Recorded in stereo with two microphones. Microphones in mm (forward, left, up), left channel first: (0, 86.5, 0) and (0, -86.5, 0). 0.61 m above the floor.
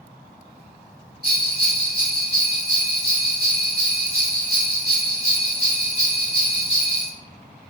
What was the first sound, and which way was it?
A bell, 70° right (ahead or behind).